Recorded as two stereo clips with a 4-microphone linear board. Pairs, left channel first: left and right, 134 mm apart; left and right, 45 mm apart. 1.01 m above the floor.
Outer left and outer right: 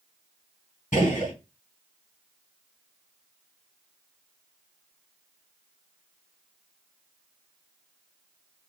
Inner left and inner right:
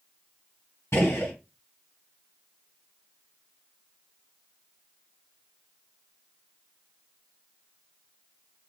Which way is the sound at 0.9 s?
75° left (ahead or behind).